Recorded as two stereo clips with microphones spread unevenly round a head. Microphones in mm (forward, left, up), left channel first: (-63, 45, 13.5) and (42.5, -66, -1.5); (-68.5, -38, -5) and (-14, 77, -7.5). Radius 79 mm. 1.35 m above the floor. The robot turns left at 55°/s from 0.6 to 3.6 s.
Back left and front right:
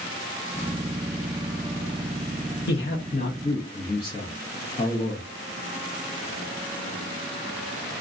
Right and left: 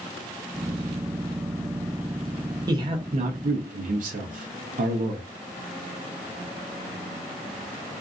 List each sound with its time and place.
2.7 s a man speaking: 125° left, 0.6 m; by 5.3 s 75° left, 0.6 m